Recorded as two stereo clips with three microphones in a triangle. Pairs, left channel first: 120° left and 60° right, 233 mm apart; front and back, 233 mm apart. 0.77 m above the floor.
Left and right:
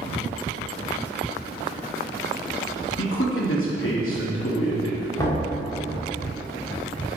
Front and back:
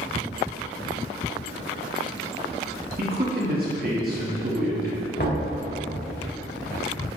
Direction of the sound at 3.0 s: 135° left.